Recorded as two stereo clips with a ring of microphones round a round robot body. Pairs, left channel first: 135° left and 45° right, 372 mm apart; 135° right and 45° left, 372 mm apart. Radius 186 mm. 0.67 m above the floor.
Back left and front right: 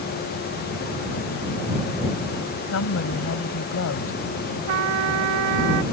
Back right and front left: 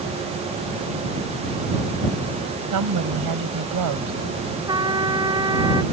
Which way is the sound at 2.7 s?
85° left.